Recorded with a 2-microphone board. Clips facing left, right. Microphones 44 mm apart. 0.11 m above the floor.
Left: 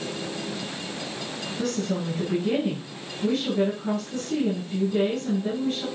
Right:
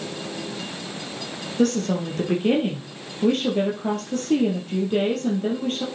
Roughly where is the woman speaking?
Right.